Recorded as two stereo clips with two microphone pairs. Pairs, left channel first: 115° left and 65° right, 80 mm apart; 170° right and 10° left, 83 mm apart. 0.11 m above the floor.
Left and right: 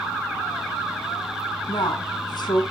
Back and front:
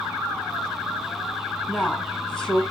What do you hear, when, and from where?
1.7 s a woman speaking: 115° left, 4 m